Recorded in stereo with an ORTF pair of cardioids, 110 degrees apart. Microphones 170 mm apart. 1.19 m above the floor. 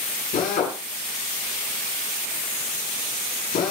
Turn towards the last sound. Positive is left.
turn(degrees=55)